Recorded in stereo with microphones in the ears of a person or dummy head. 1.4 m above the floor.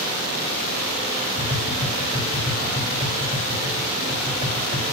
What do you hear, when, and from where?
1.4 s tapping: 25° right (ahead or behind), 4 m